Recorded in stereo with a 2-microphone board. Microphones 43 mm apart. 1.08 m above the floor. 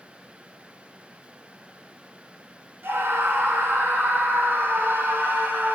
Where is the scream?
70° right (ahead or behind), 4 m; by 5.8 s 55° right (ahead or behind), 3.5 m.